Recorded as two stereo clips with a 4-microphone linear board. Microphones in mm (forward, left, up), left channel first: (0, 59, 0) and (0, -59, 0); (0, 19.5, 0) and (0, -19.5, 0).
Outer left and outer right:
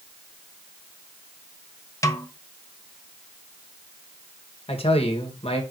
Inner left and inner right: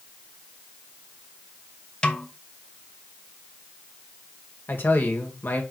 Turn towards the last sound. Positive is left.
turn(degrees=60)  # may be behind; listen again after turning